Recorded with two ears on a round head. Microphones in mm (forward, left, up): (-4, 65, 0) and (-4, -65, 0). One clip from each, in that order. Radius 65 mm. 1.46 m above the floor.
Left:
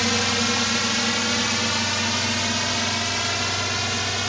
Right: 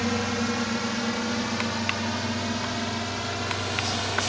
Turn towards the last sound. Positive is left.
turn(degrees=50)  # may be behind; listen again after turning